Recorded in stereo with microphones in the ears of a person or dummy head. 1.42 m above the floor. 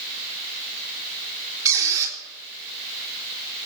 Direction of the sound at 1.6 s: 20° right (ahead or behind).